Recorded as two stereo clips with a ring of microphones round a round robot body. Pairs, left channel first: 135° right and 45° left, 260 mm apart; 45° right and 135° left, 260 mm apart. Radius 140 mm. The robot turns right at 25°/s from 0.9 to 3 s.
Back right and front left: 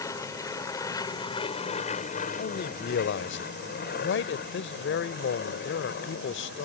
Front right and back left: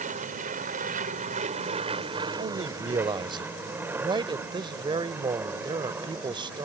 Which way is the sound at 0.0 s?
160° left.